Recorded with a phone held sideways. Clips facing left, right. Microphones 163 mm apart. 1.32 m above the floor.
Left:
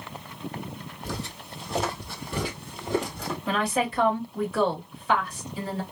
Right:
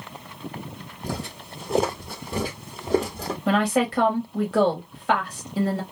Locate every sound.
1.0 s footsteps: 45° right (ahead or behind), 1.8 m; by 3.4 s 35° right (ahead or behind), 1.9 m
3.5 s a woman speaking: 65° right (ahead or behind), 1.5 m